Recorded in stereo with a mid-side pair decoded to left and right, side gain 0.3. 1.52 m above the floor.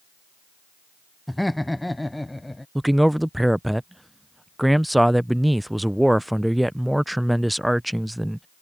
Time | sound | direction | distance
1.3 | laughter | 5° left | ?
2.8 | a man speaking | 10° right | ?